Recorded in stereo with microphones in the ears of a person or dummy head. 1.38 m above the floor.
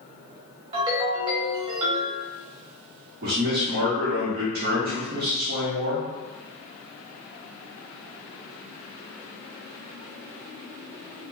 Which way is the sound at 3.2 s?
45° right (ahead or behind).